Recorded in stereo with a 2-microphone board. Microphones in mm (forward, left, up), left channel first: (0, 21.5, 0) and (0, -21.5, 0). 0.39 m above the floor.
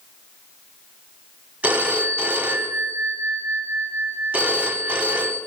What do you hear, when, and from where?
1.6 s a phone ringing: 35° right (ahead or behind), 1.4 m